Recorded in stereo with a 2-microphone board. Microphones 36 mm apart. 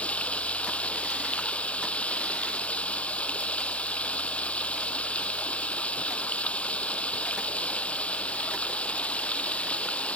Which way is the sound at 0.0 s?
35° left (ahead or behind).